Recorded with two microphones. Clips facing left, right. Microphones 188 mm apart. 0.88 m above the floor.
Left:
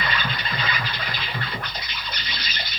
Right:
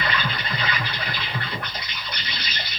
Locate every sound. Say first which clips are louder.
0.0 s an insect: right 1 dB; 70° right (ahead or behind), 3 m